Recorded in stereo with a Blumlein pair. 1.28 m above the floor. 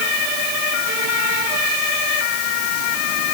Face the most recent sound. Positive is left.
No sound to turn to.